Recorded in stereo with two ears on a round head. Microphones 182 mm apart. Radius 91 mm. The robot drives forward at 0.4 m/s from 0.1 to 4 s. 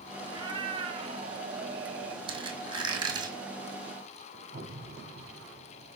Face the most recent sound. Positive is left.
turn(degrees=-65)  # may be behind; listen again after turning